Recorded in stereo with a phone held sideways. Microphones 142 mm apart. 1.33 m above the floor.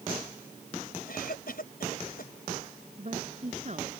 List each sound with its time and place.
1.1 s a cough: 75° left (ahead or behind)
3.0 s a woman speaking: 50° right (ahead or behind)